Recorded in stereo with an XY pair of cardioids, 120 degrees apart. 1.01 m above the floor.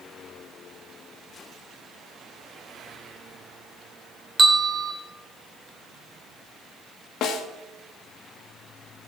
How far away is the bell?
About 2.5 m.